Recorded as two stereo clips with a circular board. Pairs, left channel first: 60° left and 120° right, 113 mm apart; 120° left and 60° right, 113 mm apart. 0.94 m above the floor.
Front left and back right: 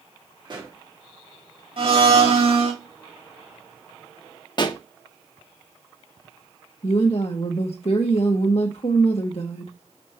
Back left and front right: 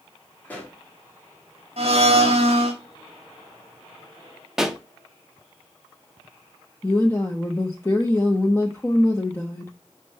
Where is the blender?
85° right, 1.7 m.